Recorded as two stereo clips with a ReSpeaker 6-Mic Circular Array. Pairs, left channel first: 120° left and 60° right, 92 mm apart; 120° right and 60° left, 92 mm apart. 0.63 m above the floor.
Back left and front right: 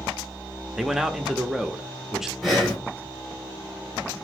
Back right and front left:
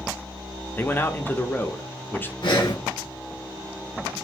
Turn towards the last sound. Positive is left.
turn(degrees=-145)